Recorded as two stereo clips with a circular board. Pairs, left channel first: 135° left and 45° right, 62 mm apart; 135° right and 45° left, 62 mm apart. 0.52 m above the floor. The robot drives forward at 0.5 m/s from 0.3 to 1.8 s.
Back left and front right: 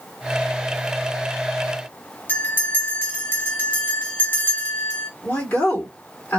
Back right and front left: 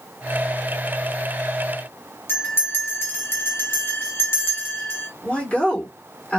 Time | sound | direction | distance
2.3 | a bell | 175° right | 1.5 m
5.2 | a woman speaking | 165° left | 1.8 m